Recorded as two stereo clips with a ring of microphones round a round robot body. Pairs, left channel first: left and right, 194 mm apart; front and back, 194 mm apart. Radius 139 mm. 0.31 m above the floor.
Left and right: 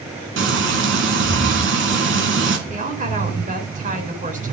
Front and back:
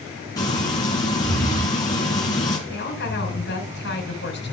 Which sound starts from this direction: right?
Frying, at 0.4 s.